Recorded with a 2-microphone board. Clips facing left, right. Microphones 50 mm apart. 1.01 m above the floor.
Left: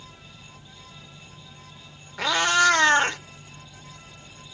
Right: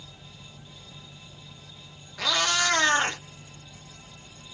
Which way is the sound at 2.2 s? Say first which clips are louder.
Left 5 dB; 25° left (ahead or behind).